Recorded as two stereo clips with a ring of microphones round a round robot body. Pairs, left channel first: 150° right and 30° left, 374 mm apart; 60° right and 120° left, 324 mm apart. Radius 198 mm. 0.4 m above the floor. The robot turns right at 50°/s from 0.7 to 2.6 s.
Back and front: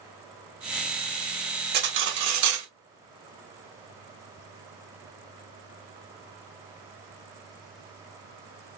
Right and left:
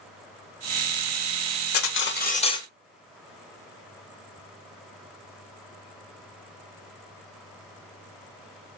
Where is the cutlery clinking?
30° right, 0.7 m; by 2.7 s 15° left, 0.7 m.